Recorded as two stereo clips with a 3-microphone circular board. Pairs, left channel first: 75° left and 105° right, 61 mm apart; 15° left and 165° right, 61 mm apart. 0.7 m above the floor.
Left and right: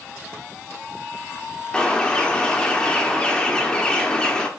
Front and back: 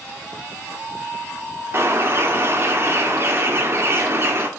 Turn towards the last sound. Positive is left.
turn(degrees=150)